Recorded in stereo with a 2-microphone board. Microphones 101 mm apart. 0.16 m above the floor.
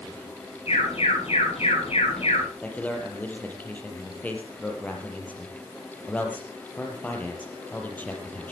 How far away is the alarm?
About 9.5 m.